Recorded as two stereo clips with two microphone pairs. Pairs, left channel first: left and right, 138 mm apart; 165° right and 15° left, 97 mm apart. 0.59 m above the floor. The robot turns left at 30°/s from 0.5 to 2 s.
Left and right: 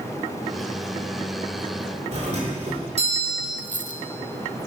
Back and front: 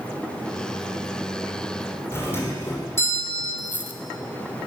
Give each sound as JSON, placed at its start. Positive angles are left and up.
{"t": 2.1, "sound": "a doorbell", "azimuth_deg": -110, "distance_m": 2.5}
{"t": 3.6, "sound": "a dropped coin", "azimuth_deg": -95, "distance_m": 0.7}